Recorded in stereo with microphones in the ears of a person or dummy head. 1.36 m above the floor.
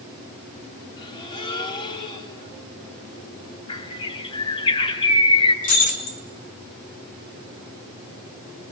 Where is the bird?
30° left (ahead or behind), 4 m.